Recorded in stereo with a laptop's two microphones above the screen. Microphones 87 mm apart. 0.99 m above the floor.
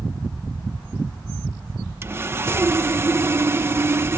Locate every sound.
2.0 s sawing: 30° right (ahead or behind)